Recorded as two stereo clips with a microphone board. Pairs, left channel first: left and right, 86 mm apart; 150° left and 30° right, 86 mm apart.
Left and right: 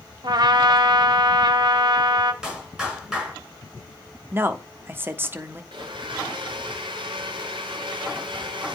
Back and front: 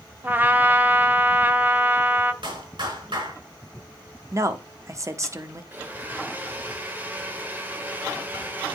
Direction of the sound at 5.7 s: 95° right.